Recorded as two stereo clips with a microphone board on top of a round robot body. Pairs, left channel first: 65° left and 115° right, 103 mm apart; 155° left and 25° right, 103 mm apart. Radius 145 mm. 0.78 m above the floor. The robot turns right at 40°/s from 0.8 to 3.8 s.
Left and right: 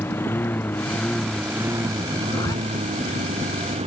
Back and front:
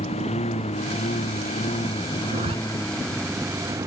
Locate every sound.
0.0 s a lawn mower: 140° left; by 3.9 s 85° right
2.2 s a zipper: straight ahead; by 2.5 s 15° left